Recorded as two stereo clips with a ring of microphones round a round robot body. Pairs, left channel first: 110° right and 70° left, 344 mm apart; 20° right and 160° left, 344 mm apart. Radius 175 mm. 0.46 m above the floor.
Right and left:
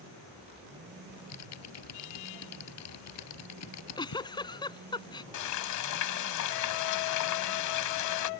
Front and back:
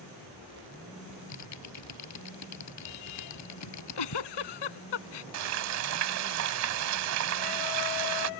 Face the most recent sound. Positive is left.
turn(degrees=-155)